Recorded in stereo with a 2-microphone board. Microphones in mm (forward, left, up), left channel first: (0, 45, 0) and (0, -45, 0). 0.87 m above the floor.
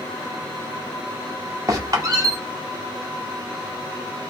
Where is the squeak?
40° right (ahead or behind), 0.9 m.